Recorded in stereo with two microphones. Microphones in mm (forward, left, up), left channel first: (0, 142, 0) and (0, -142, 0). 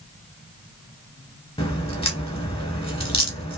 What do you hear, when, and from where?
1.6 s a crack: 20° left (ahead or behind), 1.2 m